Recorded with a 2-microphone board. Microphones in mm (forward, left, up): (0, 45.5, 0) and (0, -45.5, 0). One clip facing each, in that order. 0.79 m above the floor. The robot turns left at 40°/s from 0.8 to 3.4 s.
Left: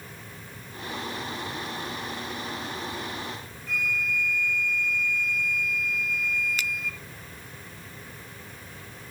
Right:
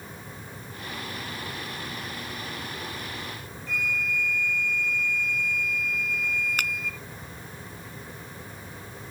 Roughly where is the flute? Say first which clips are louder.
Even; centre.